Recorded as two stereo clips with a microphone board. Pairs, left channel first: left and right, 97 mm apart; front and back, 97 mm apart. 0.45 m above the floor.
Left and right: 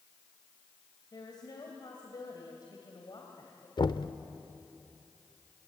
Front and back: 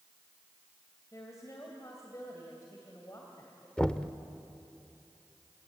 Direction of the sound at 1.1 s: 55° left.